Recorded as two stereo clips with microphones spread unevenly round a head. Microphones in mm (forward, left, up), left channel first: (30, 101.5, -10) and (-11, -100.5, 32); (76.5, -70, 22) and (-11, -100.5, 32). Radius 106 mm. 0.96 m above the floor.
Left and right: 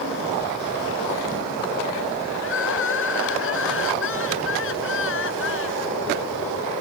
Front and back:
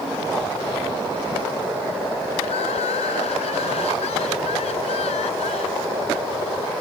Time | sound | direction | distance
2.4 | crying | 50° left | ?